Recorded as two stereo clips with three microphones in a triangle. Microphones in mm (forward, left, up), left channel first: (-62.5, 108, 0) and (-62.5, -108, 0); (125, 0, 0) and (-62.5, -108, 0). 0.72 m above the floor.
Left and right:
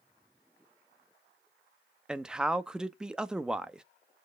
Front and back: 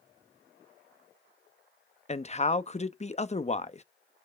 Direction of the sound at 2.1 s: 5° right.